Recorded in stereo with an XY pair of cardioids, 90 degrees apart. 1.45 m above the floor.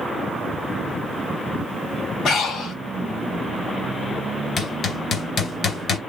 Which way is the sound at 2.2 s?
70° left.